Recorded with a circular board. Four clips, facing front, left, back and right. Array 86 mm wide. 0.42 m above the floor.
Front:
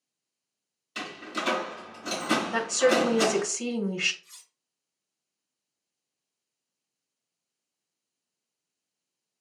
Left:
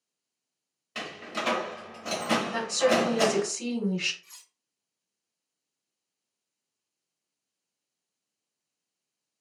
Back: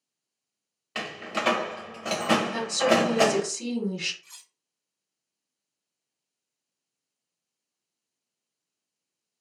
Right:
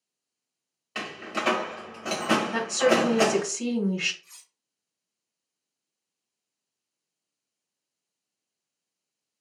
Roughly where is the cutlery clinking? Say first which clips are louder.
Left 1 dB, back 4 dB; behind.